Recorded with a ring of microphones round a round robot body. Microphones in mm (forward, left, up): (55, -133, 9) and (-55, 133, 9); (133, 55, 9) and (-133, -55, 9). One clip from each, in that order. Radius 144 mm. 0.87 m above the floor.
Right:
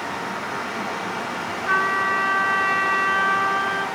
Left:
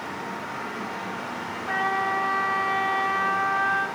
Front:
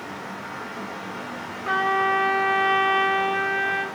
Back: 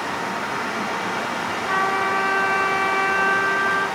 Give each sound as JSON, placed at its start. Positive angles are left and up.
{"t": 1.6, "sound": "a trumpet", "azimuth_deg": -15, "distance_m": 4.5}